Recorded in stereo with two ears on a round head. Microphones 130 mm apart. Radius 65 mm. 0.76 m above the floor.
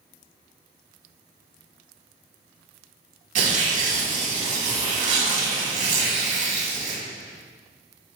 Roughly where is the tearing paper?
Right.